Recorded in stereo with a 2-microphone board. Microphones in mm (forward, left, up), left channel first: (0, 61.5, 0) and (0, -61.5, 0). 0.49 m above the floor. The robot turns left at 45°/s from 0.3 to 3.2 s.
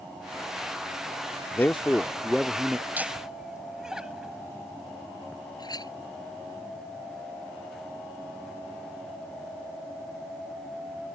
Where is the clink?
35° left (ahead or behind).